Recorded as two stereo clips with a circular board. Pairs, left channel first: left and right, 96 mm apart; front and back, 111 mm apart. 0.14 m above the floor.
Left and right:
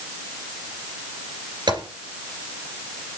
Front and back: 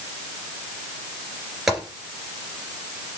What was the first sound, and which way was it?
A gunshot, 95° right.